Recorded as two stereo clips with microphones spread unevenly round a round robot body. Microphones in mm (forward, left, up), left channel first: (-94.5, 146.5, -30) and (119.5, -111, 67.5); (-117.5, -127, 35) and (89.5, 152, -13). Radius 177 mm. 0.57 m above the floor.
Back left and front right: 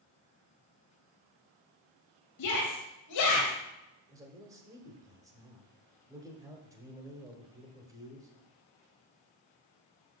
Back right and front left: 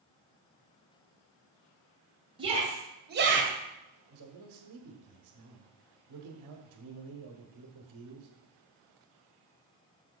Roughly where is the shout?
Behind left.